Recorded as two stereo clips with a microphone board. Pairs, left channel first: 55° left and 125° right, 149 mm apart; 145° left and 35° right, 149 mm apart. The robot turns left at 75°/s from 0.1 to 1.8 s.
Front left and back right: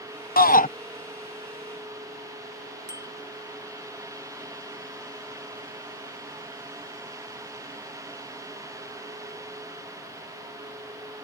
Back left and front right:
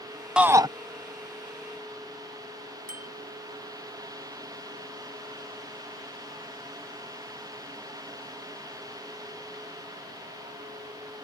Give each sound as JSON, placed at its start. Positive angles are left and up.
{"t": 0.4, "sound": "a shout", "azimuth_deg": 50}
{"t": 2.9, "sound": "a bicycle bell", "azimuth_deg": -15}